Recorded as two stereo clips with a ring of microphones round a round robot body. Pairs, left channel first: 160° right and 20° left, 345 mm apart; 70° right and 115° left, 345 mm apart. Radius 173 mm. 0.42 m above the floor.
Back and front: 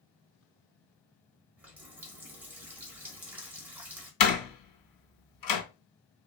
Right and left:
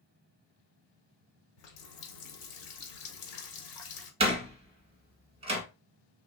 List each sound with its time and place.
1.6 s a running tap: 60° right, 1.3 m
4.2 s a door slam: 175° right, 1.5 m